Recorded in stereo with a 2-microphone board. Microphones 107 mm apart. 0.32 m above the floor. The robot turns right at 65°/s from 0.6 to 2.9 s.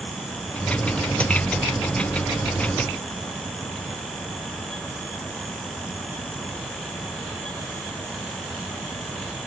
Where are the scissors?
I don't hear scissors.